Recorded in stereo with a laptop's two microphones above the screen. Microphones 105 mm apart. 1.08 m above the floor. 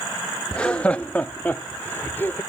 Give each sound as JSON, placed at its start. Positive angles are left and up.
{"t": 0.5, "sound": "laughter", "side_deg": 10}